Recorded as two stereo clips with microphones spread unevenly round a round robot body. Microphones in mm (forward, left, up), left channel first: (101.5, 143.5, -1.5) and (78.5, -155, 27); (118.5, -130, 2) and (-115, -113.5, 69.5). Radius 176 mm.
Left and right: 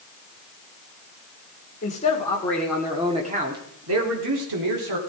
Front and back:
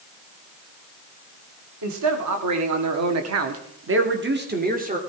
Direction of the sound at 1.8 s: 150° left.